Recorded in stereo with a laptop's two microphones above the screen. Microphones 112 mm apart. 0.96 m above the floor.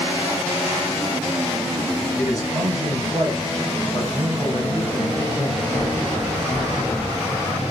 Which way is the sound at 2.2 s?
5° right (ahead or behind).